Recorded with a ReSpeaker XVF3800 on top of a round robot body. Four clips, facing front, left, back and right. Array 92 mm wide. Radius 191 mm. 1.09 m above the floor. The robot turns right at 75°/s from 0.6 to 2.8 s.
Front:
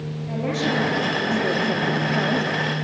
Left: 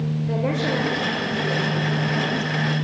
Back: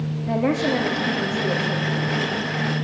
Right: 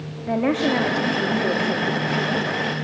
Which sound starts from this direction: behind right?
A woman speaking, at 0.3 s.